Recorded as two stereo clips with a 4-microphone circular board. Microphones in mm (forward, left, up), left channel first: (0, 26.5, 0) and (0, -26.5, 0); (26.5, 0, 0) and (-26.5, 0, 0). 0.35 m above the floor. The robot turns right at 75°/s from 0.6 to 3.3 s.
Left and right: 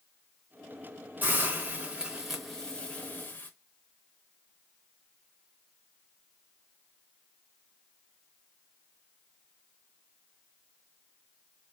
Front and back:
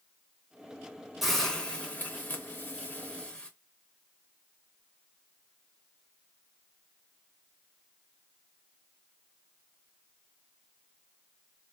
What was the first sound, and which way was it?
A hiss, 95° right.